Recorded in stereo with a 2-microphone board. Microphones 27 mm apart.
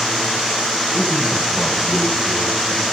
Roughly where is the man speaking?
Left.